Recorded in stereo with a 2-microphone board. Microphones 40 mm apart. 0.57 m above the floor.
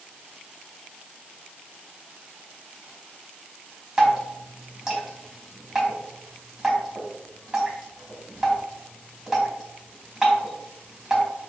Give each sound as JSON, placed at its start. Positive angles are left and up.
{"t": 4.0, "sound": "dripping", "side_deg": -15, "distance_m": 3.0}